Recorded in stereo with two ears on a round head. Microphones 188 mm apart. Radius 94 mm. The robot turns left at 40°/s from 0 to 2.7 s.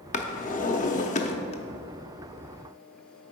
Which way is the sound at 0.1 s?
35° left (ahead or behind).